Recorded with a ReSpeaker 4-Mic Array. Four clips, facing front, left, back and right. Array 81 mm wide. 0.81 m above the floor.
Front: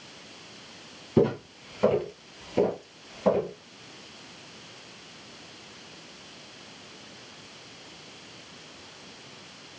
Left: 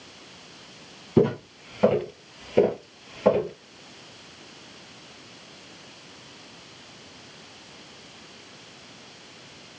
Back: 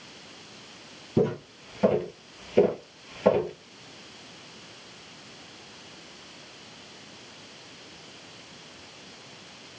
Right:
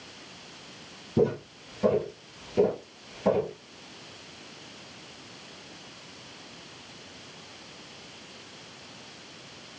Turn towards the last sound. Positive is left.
turn(degrees=150)